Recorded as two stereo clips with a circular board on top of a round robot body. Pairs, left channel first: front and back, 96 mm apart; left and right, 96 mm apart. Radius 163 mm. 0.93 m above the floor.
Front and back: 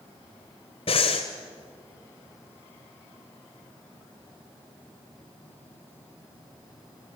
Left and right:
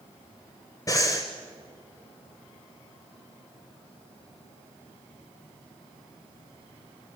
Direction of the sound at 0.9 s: 30° left.